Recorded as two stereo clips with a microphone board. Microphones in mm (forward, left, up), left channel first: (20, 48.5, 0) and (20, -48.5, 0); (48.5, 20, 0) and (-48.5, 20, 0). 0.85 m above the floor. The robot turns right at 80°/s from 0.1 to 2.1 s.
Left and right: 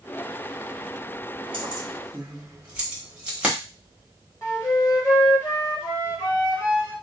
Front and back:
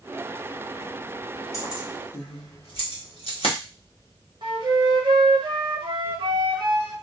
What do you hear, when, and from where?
1.5 s keys jangling: 60° right, 1.0 m; by 3.5 s 15° right, 1.0 m
4.4 s a flute: 150° left, 1.0 m